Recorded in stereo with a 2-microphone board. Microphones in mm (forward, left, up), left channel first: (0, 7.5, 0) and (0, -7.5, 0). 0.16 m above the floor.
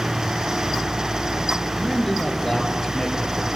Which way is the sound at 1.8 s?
45° left (ahead or behind).